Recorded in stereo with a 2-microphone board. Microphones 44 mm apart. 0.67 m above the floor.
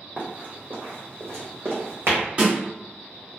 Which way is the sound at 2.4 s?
40° right (ahead or behind).